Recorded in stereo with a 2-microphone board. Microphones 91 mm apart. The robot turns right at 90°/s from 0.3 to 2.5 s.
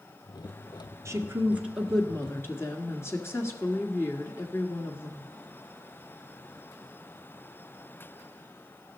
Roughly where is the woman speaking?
Right.